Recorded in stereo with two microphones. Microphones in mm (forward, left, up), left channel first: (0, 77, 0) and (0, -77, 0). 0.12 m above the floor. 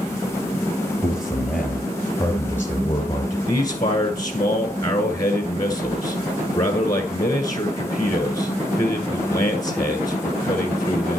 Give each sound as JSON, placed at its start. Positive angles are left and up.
{"t": 1.0, "sound": "a man speaking", "side_deg": -10, "distance_m": 2.5}
{"t": 3.5, "sound": "a man speaking", "side_deg": 25, "distance_m": 1.4}